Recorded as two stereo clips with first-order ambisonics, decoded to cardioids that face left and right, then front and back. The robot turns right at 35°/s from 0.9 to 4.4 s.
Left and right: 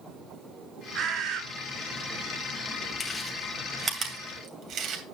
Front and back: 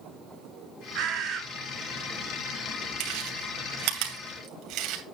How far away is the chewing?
About 2.5 m.